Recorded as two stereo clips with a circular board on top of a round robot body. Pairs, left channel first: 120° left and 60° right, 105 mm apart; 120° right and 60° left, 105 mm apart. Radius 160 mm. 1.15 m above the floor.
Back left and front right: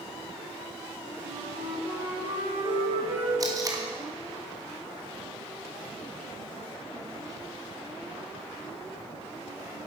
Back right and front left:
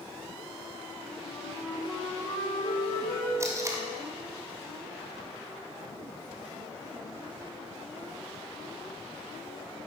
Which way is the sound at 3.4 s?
5° right.